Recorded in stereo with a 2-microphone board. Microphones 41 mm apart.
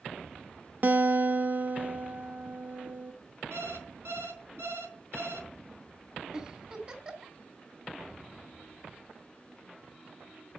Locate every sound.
0.8 s a guitar: 45° right (ahead or behind), 0.8 m
3.5 s an alarm clock: 85° right, 4 m
6.3 s a giggle: 20° right (ahead or behind), 2.5 m